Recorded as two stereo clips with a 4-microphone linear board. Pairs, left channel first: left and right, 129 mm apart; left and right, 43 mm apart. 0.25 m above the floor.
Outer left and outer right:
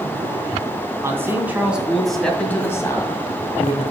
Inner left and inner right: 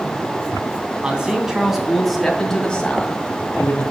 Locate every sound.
1.0 s a man speaking: 20° right (ahead or behind), 2.5 m; by 3.8 s 45° left (ahead or behind), 2 m